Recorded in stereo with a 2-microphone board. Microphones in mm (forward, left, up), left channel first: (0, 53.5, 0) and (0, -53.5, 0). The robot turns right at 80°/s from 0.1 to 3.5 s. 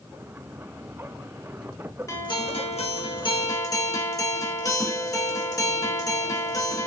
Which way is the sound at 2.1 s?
30° left.